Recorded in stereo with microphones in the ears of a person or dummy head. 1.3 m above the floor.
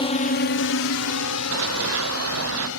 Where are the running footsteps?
75° right (ahead or behind); by 2.7 s 80° right.